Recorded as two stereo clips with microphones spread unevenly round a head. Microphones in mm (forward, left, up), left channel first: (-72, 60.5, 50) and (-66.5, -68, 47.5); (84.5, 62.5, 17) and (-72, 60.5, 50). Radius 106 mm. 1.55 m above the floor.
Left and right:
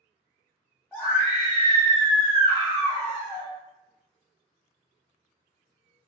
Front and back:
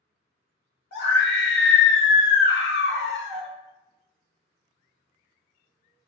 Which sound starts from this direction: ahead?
A scream, at 0.9 s.